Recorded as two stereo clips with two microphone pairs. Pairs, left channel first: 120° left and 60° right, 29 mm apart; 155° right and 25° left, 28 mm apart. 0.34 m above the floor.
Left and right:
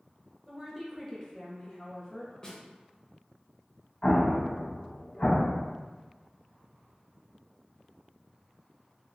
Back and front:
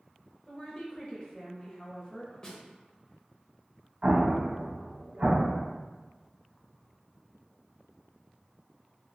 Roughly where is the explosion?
Left.